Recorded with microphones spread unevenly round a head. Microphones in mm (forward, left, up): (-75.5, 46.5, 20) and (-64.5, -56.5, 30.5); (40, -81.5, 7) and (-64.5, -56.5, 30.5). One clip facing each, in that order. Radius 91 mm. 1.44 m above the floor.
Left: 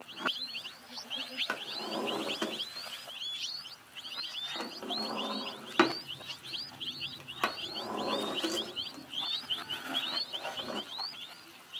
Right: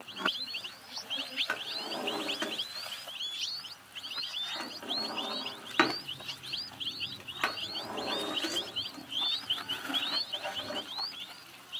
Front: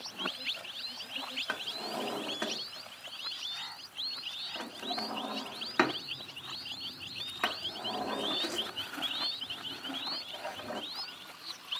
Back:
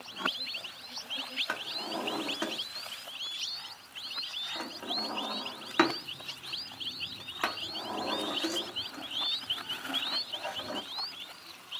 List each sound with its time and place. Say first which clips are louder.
1.5 s a drawer: left 1 dB, back 2 dB; 120° left, 0.6 m